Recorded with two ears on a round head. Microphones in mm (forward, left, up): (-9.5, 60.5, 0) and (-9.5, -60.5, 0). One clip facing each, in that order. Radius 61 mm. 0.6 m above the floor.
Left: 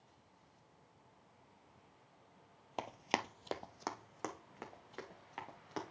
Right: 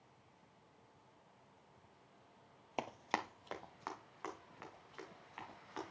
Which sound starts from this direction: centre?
Running footsteps, at 2.8 s.